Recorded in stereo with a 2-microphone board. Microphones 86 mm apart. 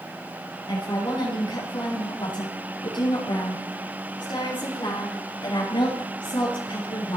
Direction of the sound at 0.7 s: 60° left (ahead or behind).